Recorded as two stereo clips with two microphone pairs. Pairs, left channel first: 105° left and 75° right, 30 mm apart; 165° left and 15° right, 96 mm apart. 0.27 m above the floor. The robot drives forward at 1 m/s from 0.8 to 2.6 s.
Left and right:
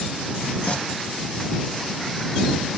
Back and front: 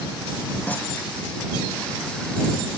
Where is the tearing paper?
100° left.